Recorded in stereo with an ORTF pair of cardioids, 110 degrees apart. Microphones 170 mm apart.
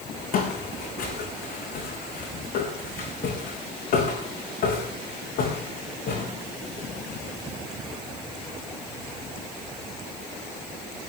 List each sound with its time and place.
0.3 s footsteps: 60° left, 5 m